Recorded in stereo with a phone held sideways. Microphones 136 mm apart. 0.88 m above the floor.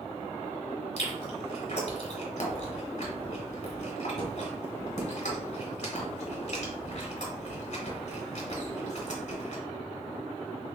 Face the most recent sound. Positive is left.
turn(degrees=55)  # may be behind; listen again after turning